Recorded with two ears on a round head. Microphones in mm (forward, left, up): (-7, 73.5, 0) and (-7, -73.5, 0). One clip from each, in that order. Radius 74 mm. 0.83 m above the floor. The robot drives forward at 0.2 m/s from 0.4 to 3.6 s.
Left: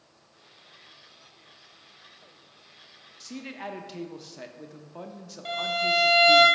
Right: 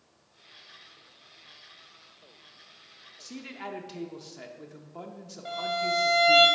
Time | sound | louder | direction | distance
3.2 | a man speaking | left 2 dB | 5° left (ahead or behind) | 0.5 m
5.5 | a violin | left 3 dB | 60° left (ahead or behind) | 2.0 m